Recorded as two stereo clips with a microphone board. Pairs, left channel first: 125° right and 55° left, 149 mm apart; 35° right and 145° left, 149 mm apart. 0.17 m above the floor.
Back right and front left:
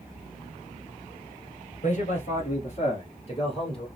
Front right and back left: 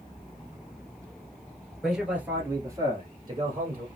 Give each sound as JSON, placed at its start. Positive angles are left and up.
{"t": 1.8, "sound": "a man speaking", "azimuth_deg": -125, "distance_m": 1.7}